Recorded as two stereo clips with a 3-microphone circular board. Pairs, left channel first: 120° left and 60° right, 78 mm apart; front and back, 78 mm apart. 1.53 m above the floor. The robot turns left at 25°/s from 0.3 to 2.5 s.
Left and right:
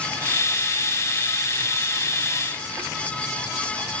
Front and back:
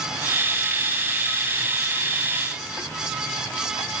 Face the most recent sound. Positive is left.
No sound to turn to.